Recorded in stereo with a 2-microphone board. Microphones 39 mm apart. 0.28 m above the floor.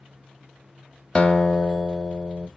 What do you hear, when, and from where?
1.1 s a guitar: 25° left (ahead or behind), 0.5 m